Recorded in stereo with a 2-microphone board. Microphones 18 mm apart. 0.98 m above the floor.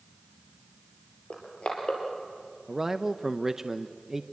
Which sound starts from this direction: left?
Crushing, at 1.3 s.